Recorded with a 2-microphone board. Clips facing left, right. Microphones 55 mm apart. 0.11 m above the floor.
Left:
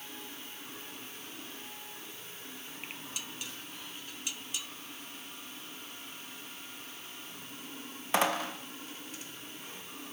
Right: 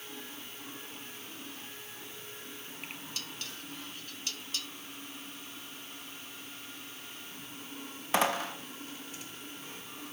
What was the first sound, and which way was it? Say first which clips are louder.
Dishes clattering: even; 15° left (ahead or behind).